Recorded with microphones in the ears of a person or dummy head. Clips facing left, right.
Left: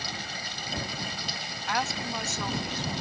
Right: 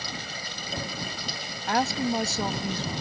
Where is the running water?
75° right (ahead or behind).